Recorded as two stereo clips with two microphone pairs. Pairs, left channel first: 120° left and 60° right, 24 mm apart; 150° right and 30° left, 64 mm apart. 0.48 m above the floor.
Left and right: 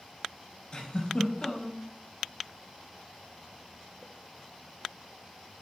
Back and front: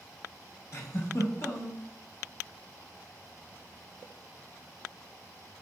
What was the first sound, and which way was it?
A giggle, 175° left.